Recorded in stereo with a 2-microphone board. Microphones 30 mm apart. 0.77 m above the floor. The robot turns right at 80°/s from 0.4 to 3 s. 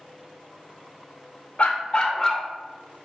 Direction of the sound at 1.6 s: 105° left.